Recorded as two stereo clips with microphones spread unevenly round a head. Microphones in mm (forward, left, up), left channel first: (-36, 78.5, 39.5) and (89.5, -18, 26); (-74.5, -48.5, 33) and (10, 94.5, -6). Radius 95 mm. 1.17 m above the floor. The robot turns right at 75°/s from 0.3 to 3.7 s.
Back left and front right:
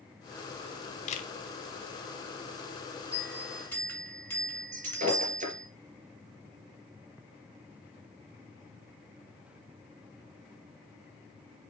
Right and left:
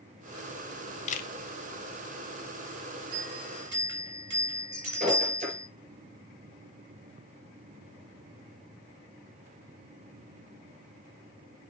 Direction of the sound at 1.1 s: 170° right.